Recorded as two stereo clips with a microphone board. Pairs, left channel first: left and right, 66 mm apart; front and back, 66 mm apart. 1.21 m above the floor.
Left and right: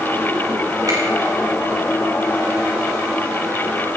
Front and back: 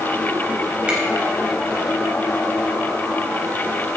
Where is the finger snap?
105° right, 5.5 m.